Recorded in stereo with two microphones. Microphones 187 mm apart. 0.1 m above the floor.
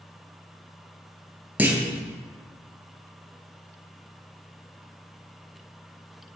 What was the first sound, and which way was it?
A clunk, 10° right (ahead or behind).